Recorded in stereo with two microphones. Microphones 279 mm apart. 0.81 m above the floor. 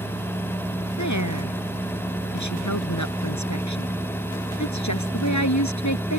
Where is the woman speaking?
85° left; by 6.2 s 80° left.